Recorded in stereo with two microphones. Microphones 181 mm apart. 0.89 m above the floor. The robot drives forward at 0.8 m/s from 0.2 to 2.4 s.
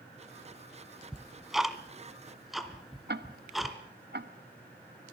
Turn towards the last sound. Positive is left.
turn(degrees=-65)  # may be behind; listen again after turning